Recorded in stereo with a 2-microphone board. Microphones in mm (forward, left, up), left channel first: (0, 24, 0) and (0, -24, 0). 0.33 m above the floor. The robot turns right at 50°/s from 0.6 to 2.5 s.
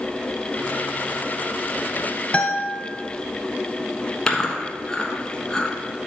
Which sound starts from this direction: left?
A guitar, at 2.3 s.